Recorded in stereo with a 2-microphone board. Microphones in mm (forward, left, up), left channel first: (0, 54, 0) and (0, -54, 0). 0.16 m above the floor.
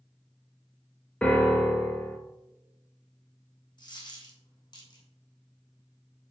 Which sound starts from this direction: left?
A dropped coin, at 3.8 s.